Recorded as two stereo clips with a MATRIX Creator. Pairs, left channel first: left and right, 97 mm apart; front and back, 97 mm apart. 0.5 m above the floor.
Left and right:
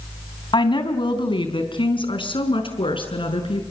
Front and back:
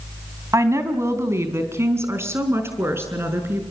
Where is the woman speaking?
120° left, 3 m; by 3.6 s 115° left, 5.5 m.